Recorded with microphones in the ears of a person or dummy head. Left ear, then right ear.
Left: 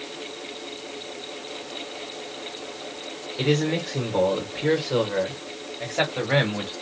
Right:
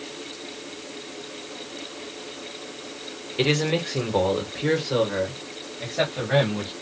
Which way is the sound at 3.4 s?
20° right (ahead or behind).